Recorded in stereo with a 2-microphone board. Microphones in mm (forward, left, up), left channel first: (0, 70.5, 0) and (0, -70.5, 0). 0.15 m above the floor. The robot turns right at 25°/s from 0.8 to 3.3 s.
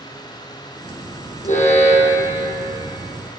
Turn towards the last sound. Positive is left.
turn(degrees=165)